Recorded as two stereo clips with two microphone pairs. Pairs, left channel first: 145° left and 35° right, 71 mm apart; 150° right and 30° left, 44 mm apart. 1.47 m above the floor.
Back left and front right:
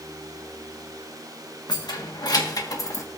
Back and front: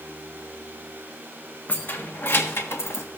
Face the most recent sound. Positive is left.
turn(degrees=-170)